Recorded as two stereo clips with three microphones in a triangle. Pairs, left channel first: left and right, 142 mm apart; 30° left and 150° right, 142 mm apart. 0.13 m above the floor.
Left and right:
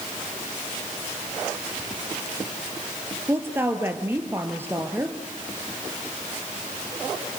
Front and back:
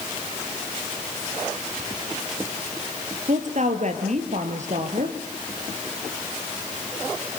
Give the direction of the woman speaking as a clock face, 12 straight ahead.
5 o'clock.